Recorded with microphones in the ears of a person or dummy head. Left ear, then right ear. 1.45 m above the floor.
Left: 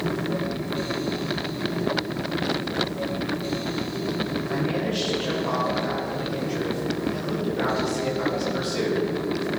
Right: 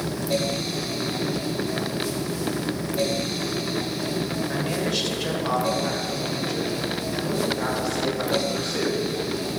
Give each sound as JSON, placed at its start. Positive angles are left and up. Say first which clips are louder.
{"t": 4.5, "sound": "a man speaking", "louder": "right 1 dB", "side_deg": -45, "distance_m": 3.5}